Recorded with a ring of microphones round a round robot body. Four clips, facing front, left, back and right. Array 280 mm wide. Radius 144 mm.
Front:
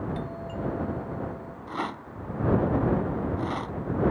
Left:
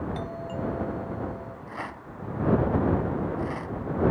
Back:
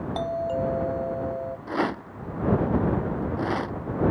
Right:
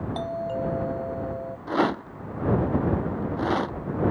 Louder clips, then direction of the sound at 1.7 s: Right 17 dB, back 5 dB; 115° right.